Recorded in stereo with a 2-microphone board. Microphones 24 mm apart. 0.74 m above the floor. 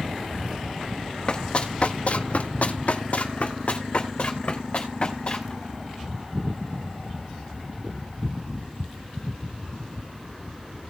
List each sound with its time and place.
1.3 s running footsteps: 35° left (ahead or behind), 1.5 m; by 5.5 s 40° left (ahead or behind), 3.5 m